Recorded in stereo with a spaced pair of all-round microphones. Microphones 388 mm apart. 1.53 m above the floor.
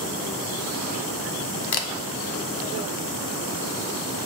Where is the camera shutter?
75° left (ahead or behind), 0.6 m.